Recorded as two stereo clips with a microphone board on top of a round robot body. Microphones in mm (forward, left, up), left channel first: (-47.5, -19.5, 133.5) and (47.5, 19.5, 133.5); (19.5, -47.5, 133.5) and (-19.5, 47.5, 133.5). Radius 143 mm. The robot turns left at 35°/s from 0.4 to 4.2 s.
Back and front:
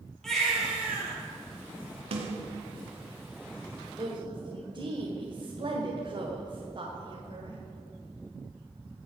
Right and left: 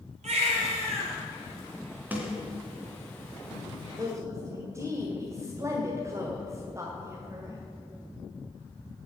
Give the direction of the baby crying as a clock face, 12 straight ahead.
8 o'clock.